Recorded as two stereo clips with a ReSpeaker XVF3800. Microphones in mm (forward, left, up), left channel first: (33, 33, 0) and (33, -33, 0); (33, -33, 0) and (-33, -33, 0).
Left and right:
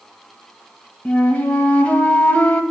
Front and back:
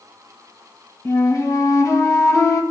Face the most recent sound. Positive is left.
turn(degrees=20)